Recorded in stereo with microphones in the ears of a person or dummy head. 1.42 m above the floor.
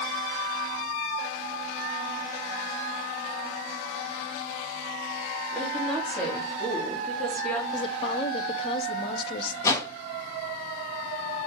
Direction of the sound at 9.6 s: 20° left (ahead or behind).